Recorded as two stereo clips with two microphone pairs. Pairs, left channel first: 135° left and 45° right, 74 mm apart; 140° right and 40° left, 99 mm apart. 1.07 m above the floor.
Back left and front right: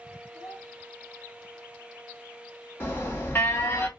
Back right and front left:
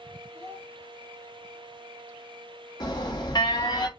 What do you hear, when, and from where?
0.3 s a child speaking: 105° left, 2 m
2.8 s an alarm: 170° right, 1.0 m